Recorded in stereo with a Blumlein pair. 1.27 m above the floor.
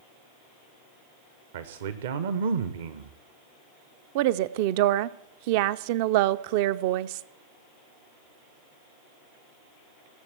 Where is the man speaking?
60° right, 0.9 m.